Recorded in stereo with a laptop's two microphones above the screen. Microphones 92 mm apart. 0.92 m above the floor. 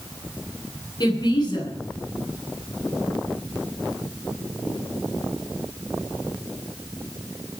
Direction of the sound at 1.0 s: 50° left (ahead or behind).